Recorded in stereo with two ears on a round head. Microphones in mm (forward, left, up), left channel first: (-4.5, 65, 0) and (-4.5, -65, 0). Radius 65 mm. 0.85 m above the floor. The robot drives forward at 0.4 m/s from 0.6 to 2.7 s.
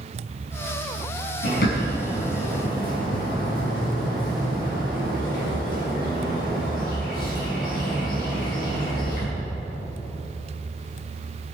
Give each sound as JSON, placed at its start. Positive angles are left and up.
{"t": 1.4, "sound": "a bird", "side_deg": 75, "distance_m": 6.5}